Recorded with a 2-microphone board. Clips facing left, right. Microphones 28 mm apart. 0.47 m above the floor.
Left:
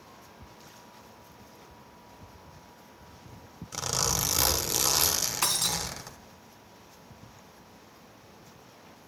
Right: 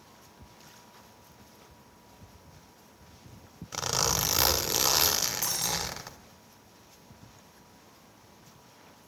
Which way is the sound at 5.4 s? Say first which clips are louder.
Left 3 dB; 60° left (ahead or behind).